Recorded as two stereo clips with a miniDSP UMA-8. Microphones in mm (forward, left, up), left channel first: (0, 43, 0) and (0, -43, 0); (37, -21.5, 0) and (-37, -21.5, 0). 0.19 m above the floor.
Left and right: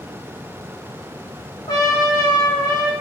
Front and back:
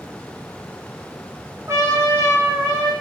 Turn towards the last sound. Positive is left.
turn(degrees=130)